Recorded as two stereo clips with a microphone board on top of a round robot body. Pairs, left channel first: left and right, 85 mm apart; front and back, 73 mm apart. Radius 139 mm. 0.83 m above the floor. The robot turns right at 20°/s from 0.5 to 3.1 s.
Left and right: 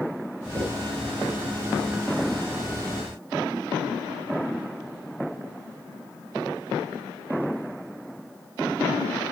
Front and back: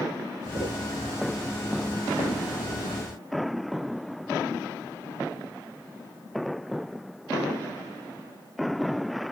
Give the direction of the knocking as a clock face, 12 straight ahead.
5 o'clock.